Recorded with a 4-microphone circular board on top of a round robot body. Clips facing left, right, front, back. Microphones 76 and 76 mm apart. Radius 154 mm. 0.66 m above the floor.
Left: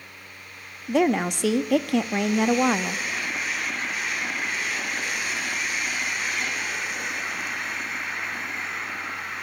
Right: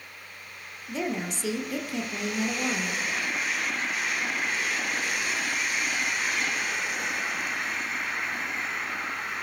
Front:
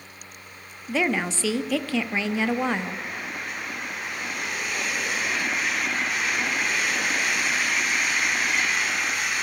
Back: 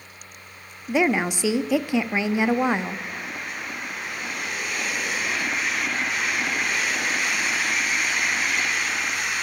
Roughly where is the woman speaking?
Left.